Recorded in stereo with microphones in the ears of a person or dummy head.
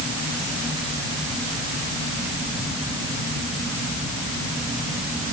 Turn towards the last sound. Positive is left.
No sound to turn to.